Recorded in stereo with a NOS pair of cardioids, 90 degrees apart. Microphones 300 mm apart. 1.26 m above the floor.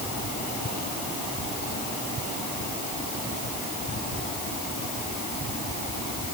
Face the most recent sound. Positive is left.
No sound to turn to.